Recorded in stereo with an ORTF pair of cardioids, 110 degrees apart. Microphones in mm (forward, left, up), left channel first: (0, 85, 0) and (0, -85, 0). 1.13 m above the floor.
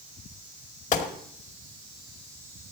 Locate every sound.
0.9 s a gunshot: 45° left, 2 m